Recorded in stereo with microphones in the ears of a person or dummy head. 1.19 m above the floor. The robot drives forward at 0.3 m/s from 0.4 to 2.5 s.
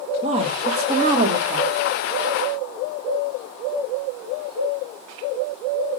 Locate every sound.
0.2 s a woman speaking: 35° right (ahead or behind), 1.7 m; by 1.7 s 30° right (ahead or behind), 2.0 m